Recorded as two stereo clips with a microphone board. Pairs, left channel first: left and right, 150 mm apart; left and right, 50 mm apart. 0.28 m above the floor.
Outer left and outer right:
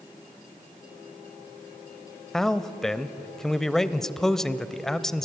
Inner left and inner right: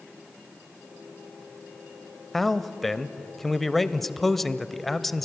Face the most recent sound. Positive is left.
turn(degrees=5)  # may be behind; listen again after turning